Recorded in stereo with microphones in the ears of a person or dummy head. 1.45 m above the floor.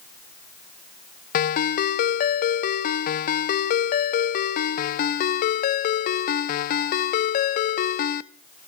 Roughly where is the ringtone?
Left.